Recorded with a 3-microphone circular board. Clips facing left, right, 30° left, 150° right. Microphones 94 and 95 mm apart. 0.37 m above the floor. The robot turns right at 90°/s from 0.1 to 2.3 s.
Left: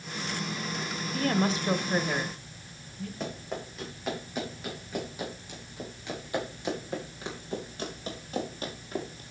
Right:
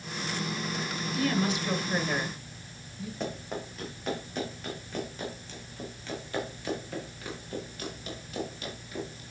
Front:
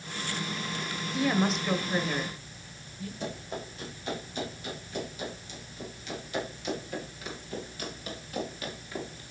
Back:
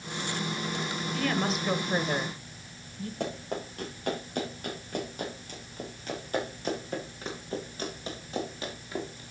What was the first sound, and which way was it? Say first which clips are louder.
A woman speaking: left 1 dB, front 3 dB; 85° left.